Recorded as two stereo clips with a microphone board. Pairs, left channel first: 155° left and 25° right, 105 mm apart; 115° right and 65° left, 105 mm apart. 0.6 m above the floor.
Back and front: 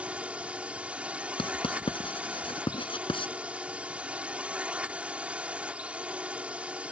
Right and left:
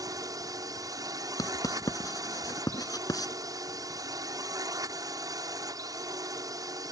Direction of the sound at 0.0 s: 50° left.